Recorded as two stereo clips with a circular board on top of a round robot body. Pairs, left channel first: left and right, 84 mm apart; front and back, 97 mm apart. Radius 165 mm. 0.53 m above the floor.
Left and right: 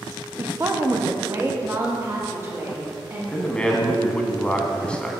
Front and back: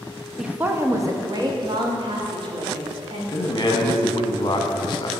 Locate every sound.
0.4 s a woman speaking: 100° right, 0.7 m; by 3.2 s 150° right, 1.9 m
3.3 s a man speaking: 15° left, 0.9 m